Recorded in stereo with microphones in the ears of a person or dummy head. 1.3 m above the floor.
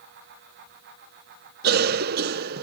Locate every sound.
1.6 s a cough: 50° right (ahead or behind)